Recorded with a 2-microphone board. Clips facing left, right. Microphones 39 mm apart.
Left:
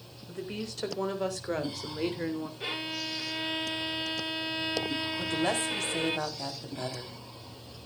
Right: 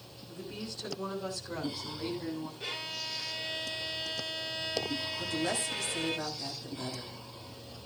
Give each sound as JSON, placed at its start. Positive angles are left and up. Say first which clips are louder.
{"t": 0.3, "sound": "a woman speaking", "louder": "left 5 dB", "side_deg": 75, "distance_m": 3.5}
{"t": 2.6, "sound": "a violin", "louder": "left 4 dB", "side_deg": 20, "distance_m": 1.0}
{"t": 5.2, "sound": "a woman speaking", "louder": "left 4 dB", "side_deg": 55, "distance_m": 3.5}